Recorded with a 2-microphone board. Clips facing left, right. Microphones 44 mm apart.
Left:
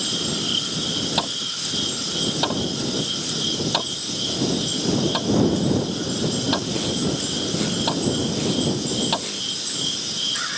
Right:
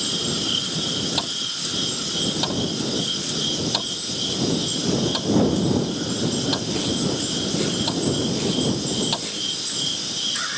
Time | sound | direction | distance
1.2 | hammering | 20° left (ahead or behind) | ?